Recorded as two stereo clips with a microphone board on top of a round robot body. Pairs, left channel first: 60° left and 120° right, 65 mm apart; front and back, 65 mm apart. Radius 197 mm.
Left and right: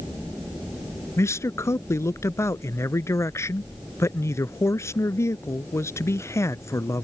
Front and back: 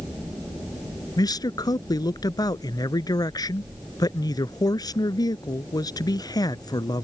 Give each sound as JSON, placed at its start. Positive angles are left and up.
{"t": 1.2, "sound": "a man speaking", "azimuth_deg": 15}